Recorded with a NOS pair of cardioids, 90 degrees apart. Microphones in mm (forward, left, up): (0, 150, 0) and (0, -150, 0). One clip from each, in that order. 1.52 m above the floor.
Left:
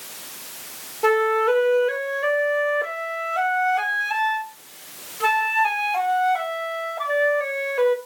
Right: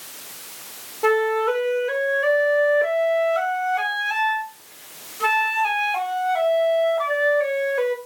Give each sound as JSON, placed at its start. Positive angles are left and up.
{"t": 1.0, "sound": "a flute", "azimuth_deg": -5, "distance_m": 2.5}